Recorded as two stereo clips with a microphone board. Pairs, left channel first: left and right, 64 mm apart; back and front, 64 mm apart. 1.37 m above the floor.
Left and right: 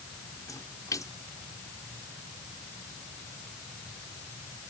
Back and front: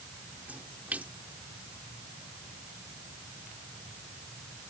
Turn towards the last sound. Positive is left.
turn(degrees=65)